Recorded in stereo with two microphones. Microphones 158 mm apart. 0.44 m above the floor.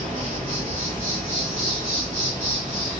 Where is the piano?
No piano in this recording.